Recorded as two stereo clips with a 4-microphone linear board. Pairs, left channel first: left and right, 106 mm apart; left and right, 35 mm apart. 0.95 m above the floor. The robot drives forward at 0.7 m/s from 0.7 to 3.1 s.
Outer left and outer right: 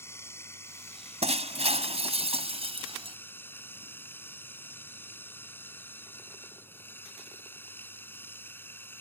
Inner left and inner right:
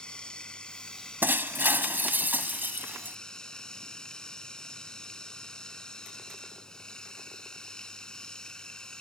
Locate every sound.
0.0 s running water: 25° left (ahead or behind); by 9.0 s 20° left (ahead or behind)
1.2 s breaking glass: 80° right; by 3.2 s 65° right (ahead or behind)